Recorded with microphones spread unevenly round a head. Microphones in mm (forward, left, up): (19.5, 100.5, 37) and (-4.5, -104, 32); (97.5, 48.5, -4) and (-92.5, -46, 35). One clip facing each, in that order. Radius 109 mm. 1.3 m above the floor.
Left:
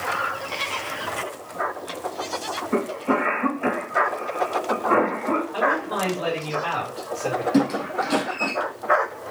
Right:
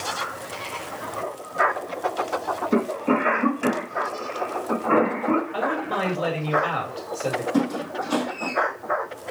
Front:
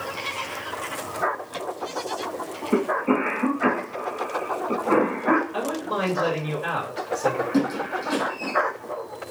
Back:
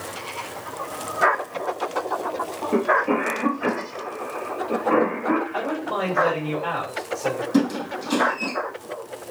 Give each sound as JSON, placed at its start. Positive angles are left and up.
{"t": 2.7, "sound": "a cough", "azimuth_deg": -45, "distance_m": 2.0}
{"t": 5.5, "sound": "a man speaking", "azimuth_deg": -40, "distance_m": 1.8}
{"t": 7.5, "sound": "a squeak", "azimuth_deg": 145, "distance_m": 3.0}